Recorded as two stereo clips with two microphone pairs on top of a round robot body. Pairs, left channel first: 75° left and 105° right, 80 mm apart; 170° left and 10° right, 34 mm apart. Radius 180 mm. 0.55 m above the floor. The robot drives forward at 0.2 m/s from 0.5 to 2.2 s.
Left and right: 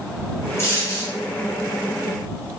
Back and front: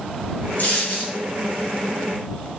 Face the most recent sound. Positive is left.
turn(degrees=145)